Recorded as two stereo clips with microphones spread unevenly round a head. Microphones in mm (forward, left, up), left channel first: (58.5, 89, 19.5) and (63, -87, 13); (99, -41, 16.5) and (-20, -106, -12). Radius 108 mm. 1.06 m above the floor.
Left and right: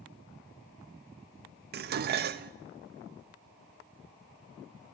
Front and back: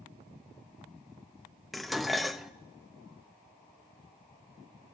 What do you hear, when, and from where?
1.7 s dishes clattering: 60° right, 0.5 m